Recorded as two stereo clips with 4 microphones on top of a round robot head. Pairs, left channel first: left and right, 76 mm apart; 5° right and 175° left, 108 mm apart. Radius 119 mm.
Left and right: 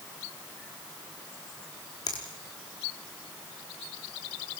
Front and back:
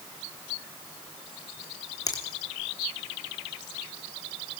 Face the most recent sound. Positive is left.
turn(degrees=50)